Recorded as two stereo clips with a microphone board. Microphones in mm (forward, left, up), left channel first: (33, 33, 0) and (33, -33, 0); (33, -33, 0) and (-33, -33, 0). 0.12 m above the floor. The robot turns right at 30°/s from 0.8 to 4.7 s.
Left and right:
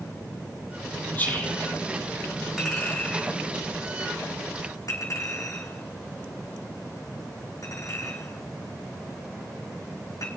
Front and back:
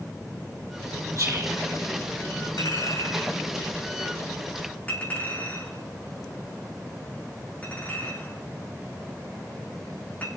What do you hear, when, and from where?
1.2 s whispering: 150° left, 3.5 m; by 1.6 s 160° left, 3.5 m
2.6 s a clink: straight ahead, 5 m; by 10.4 s 65° left, 5 m